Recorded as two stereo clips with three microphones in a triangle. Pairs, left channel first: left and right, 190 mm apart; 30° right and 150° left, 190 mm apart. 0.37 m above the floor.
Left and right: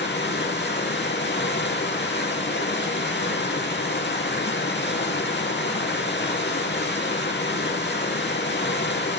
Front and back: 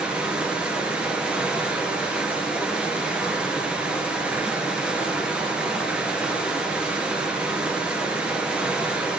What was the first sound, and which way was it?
Running water, 65° left.